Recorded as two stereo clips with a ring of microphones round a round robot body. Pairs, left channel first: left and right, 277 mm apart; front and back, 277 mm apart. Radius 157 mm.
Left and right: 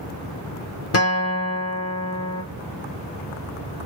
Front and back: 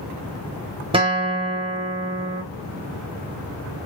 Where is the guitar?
110° left, 0.9 m.